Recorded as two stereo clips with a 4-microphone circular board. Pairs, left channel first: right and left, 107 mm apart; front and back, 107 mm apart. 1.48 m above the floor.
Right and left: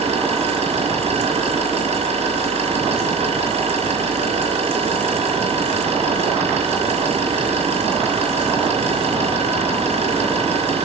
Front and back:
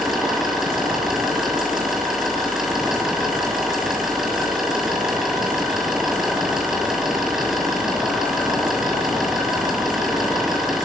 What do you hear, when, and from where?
0.0 s an engine running: 90° left, 8 m